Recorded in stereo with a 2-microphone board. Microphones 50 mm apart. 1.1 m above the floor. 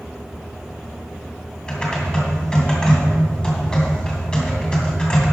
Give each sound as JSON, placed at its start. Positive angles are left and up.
{"t": 1.7, "sound": "typing on a keyboard", "side_deg": 20, "distance_m": 2.0}